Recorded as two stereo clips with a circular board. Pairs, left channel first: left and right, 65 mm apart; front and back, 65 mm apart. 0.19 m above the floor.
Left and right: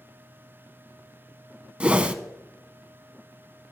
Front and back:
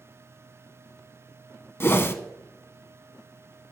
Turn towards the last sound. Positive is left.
turn(degrees=-25)